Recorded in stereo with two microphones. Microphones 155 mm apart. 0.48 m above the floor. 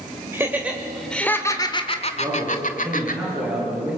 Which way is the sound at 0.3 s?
15° right (ahead or behind).